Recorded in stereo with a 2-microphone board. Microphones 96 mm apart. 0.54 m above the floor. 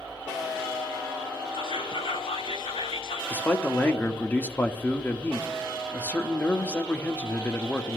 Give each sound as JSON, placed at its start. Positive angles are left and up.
{"t": 1.5, "sound": "whispering", "side_deg": 75, "distance_m": 4.5}
{"t": 3.3, "sound": "a man speaking", "side_deg": 20, "distance_m": 0.8}